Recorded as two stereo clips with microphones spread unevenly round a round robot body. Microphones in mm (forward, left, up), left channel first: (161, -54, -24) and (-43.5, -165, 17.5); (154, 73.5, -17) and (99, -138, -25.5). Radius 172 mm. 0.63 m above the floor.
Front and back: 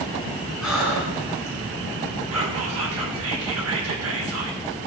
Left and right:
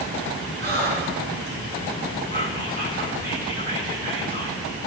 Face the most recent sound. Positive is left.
turn(degrees=-155)